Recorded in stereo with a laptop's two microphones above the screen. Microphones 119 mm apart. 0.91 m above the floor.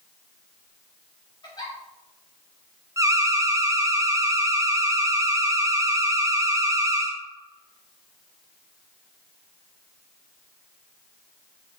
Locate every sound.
1.4 s a giggle: 35° left (ahead or behind), 3 m
3.0 s an alarm: 25° right (ahead or behind), 0.9 m